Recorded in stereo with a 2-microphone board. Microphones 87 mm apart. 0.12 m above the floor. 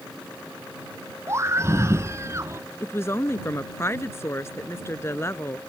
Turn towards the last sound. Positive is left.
turn(degrees=30)  # may be behind; listen again after turning